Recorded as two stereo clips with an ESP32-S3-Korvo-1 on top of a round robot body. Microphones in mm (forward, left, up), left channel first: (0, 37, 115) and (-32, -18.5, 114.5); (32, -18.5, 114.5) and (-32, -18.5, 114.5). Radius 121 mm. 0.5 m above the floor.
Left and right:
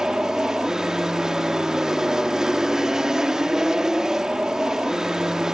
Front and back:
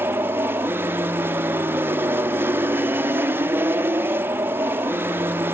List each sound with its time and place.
0.0 s an aircraft: 165° left